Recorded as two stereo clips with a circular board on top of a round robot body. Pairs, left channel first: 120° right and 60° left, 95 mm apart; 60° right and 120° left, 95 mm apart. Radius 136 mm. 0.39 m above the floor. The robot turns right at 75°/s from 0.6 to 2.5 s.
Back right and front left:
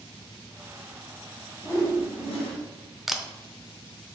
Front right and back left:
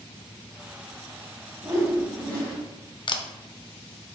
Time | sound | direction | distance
1.6 | a whoosh | 170° left | 2.5 m
3.1 | a camera shutter | 25° right | 0.7 m